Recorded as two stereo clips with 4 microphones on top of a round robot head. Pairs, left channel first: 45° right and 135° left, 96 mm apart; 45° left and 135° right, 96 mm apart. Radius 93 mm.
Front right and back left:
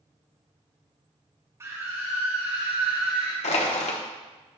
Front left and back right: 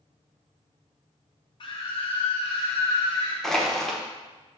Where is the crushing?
40° right, 1.0 m.